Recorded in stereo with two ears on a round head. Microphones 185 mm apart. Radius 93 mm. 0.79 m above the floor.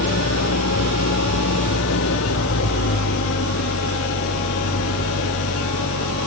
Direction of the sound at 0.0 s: 70° left (ahead or behind).